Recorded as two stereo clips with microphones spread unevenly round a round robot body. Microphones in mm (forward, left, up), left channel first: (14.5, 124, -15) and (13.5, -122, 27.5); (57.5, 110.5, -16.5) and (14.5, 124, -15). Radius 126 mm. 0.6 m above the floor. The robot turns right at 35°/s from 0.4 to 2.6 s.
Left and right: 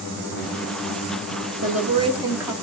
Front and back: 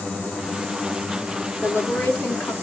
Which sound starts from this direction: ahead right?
A woman speaking, at 1.6 s.